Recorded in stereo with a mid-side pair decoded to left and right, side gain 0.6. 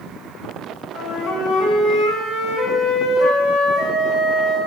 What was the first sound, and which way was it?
A flute, 70° left.